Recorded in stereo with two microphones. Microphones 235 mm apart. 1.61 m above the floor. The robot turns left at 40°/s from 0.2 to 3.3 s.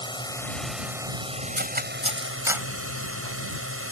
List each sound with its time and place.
0.0 s a drone: 20° left; by 3.9 s 105° right
1.6 s cutlery clinking: 50° right (ahead or behind); by 2.7 s 5° right (ahead or behind)